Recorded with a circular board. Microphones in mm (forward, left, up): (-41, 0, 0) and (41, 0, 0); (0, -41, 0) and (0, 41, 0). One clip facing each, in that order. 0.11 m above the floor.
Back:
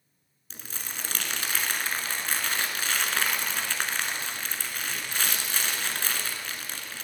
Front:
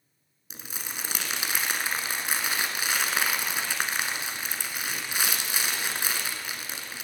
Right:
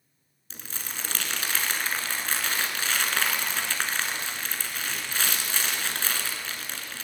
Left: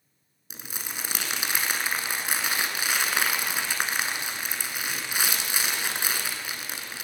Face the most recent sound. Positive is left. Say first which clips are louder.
# front 1 dB, left 1 dB
turn(degrees=45)